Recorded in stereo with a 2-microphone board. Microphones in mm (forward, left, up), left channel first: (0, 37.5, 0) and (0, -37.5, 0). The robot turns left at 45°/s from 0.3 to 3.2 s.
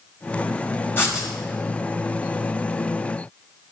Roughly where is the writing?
Left.